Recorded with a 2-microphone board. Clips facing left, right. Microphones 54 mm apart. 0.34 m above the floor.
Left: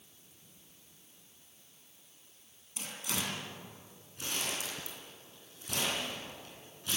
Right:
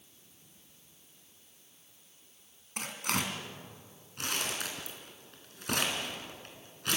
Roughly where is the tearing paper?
Right.